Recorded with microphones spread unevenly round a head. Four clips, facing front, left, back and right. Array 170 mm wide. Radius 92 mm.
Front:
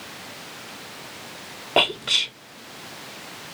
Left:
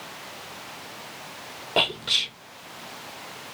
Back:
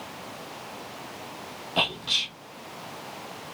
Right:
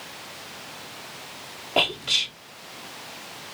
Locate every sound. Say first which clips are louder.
1.8 s whispering: right 1 dB, front 7 dB; 5° left, 2.5 m